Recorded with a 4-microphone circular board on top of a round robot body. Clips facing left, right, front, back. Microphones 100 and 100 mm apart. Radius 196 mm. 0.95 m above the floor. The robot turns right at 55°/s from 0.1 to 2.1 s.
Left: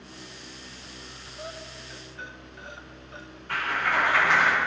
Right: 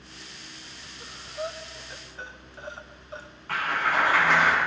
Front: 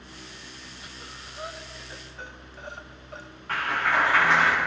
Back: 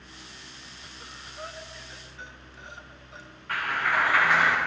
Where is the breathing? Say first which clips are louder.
Right 7 dB, front 2 dB; 100° right, 1.3 m; by 3.3 s 40° right, 1.3 m.